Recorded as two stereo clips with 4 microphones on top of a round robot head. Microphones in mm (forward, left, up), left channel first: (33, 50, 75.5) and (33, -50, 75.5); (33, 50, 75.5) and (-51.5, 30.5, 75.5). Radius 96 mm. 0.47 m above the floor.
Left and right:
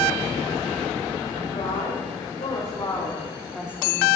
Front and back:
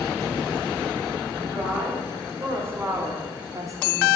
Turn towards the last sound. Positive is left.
turn(degrees=-125)